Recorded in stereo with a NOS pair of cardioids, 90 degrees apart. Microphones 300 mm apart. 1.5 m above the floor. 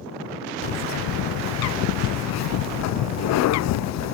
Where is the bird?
65° left.